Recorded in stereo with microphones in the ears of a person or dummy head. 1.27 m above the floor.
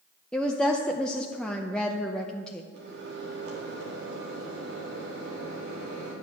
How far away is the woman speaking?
About 0.7 m.